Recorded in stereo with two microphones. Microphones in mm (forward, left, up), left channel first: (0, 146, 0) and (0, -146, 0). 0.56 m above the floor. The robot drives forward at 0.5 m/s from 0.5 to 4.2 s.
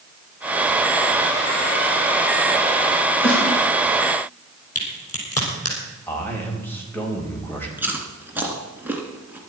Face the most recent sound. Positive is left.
turn(degrees=-5)  # may be behind; listen again after turning